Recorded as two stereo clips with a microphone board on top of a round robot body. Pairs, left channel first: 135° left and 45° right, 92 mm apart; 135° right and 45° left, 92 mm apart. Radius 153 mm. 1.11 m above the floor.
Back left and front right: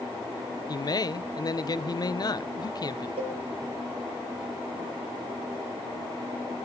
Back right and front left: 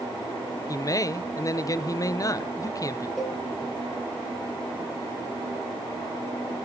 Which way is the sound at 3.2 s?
50° right.